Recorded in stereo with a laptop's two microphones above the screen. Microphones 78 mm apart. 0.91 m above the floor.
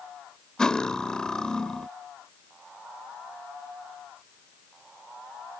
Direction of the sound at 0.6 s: 10° left (ahead or behind).